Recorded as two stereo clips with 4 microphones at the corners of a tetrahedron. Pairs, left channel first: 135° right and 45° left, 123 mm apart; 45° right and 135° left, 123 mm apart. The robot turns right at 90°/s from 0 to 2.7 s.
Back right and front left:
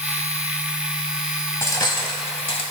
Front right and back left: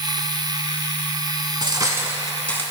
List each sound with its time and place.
1.6 s cutlery clinking: 160° left, 0.8 m; by 2.6 s 105° right, 0.8 m